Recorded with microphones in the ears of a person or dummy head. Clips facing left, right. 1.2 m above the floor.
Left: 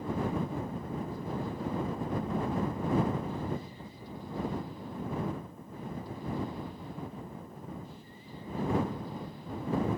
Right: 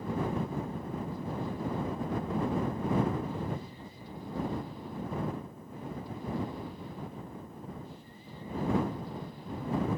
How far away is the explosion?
I don't hear an explosion.